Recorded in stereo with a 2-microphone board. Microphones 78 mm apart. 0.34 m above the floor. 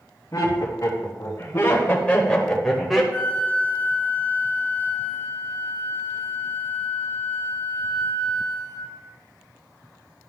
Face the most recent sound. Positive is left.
turn(degrees=25)  # may be behind; listen again after turning